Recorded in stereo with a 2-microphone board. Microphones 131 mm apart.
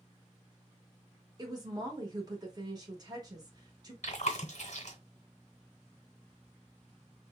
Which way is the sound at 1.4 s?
30° right (ahead or behind).